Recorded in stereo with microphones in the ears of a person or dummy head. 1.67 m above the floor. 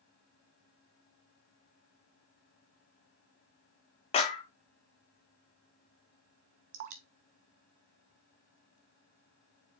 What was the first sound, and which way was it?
A clap, 25° left (ahead or behind).